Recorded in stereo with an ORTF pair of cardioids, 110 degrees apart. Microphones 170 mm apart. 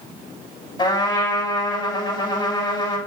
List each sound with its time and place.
0.8 s a trumpet: 25° left, 6 m